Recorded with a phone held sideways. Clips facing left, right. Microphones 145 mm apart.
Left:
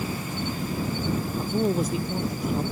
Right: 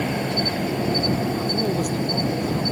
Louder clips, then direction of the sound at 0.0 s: Right 7 dB; 80° right.